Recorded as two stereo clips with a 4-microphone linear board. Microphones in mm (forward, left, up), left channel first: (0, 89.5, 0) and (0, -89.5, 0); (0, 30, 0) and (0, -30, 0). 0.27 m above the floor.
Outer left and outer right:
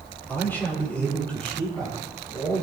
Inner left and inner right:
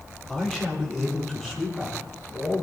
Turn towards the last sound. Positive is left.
turn(degrees=5)  # may be behind; listen again after turning